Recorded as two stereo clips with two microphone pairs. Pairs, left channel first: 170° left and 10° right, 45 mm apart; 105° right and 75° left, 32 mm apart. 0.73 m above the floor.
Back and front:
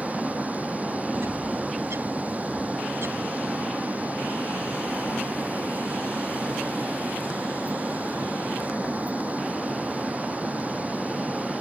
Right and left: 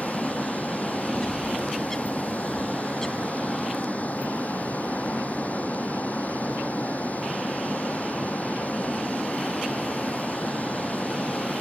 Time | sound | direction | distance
0.0 | a vehicle | 65° right | ?
1.1 | a bird | 25° right | ?